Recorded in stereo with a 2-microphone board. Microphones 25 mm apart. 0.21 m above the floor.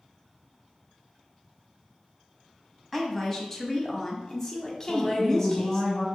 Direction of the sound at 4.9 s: 30° left (ahead or behind).